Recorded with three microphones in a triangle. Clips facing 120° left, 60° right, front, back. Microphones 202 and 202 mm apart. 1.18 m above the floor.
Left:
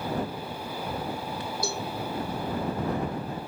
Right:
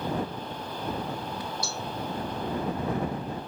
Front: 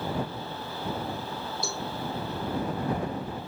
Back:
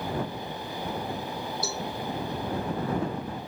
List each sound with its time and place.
1.6 s a cowbell: 90° left